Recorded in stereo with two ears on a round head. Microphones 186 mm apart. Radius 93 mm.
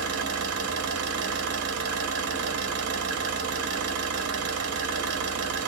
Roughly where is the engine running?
Right.